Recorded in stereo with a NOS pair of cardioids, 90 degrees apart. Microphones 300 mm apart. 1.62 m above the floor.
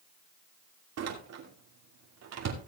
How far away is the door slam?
About 2.5 m.